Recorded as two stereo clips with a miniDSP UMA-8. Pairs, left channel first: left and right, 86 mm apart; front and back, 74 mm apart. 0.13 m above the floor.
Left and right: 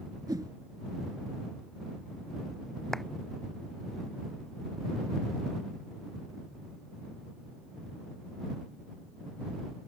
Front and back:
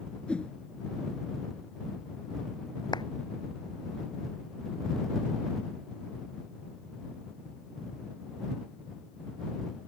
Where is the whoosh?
70° right.